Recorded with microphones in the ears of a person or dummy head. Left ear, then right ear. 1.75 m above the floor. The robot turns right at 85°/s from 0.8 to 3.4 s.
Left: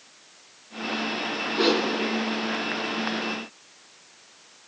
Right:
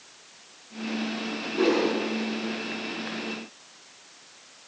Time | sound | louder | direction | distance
1.5 | a whoosh | even | 20° left | 4.5 m